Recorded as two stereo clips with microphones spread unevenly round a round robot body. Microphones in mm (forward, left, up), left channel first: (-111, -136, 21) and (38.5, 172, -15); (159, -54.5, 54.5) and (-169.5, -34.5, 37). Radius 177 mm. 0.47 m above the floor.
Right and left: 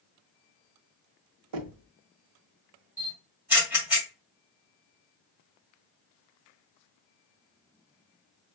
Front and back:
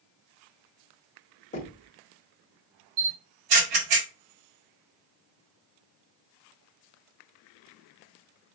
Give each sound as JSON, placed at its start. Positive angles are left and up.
{"t": 1.5, "sound": "knocking", "azimuth_deg": 65, "distance_m": 1.0}
{"t": 3.0, "sound": "a camera shutter", "azimuth_deg": 150, "distance_m": 3.0}